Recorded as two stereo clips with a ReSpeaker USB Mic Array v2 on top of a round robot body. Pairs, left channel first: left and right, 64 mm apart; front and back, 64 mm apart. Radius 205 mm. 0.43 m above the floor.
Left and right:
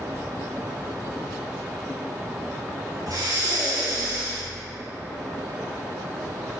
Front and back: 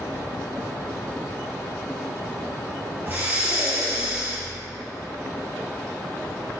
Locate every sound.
3.1 s breathing: 115° right, 4 m